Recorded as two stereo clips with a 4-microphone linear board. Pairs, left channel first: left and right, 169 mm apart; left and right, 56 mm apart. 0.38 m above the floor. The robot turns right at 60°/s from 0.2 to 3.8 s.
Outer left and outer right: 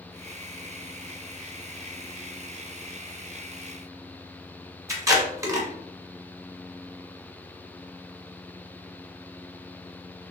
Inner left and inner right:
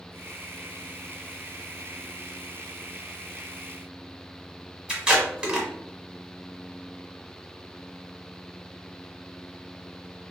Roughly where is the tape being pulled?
Centre.